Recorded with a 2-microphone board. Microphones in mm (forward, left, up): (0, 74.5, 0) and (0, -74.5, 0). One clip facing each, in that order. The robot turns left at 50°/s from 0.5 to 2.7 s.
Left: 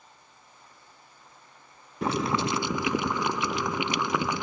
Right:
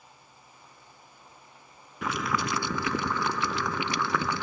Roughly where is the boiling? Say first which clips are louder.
Left 4 dB; ahead left.